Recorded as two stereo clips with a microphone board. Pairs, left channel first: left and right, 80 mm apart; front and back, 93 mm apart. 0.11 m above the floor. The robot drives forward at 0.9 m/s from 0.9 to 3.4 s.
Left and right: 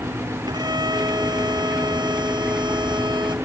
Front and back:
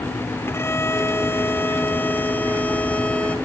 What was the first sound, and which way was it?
A violin, 65° right.